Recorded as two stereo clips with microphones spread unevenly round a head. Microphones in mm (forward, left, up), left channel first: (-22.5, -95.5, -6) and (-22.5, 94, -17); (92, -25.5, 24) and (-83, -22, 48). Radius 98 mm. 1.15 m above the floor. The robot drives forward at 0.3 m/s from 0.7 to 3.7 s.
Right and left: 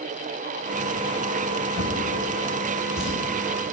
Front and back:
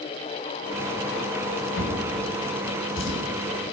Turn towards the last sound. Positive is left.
turn(degrees=0)